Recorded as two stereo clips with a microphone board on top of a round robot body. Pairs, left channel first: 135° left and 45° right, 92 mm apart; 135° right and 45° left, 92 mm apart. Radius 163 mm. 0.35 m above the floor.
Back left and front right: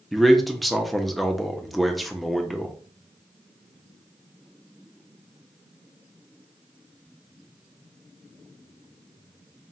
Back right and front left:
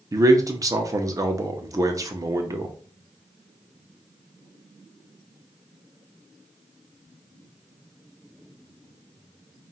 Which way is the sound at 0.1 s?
45° left.